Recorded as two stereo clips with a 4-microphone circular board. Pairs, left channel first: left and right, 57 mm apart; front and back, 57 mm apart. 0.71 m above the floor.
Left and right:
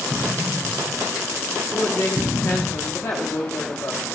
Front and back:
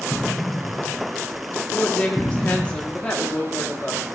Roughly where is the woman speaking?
Ahead left.